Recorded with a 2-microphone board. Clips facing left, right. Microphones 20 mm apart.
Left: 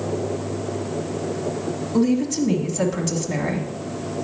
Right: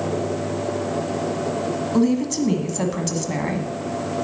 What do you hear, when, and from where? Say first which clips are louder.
1.9 s a woman speaking: even; 20° right (ahead or behind), 1.2 m